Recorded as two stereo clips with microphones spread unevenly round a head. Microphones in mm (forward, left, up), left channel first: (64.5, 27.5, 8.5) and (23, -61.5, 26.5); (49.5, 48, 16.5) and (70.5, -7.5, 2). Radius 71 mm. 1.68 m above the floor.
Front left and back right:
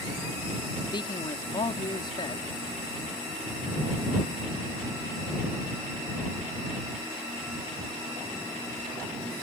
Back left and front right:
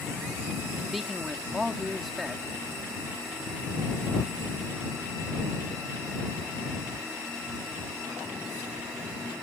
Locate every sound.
0.9 s a man speaking: 20° left